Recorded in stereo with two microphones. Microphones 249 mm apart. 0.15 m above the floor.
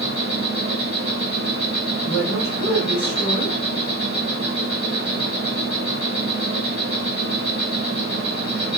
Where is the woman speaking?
10° right (ahead or behind), 1.7 m.